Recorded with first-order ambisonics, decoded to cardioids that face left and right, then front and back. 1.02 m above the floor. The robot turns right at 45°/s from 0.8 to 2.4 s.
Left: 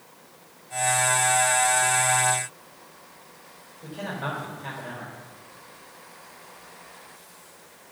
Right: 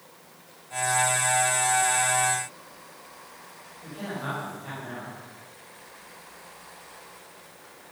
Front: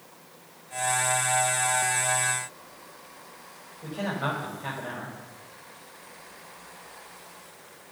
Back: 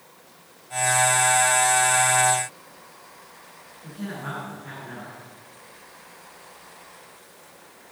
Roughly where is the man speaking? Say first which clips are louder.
Left 2 dB, front 6 dB; ahead.